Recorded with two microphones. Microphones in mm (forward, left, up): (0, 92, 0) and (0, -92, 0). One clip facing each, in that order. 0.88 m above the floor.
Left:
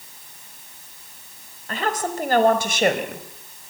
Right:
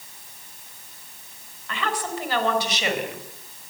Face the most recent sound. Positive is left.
turn(degrees=50)  # may be behind; listen again after turning